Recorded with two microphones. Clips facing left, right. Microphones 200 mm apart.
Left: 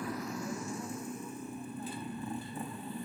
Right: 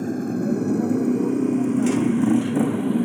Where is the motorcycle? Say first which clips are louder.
Right 15 dB; 45° right (ahead or behind); by 3.1 s 75° right (ahead or behind).